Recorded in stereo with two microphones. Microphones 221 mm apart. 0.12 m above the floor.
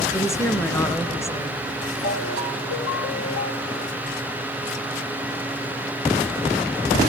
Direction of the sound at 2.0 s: 70° left (ahead or behind).